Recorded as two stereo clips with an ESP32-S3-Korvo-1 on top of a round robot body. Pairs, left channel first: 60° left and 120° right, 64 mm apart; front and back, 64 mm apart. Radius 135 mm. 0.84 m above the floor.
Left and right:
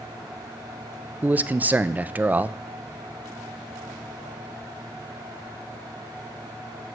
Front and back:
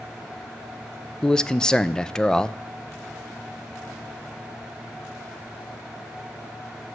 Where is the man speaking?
75° right, 0.5 m.